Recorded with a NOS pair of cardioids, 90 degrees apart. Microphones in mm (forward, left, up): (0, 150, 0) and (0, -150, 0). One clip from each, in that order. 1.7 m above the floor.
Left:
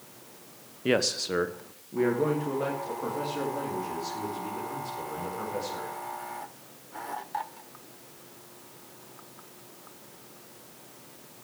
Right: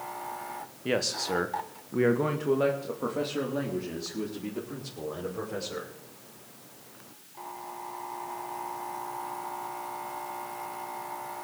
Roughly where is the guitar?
I don't hear a guitar.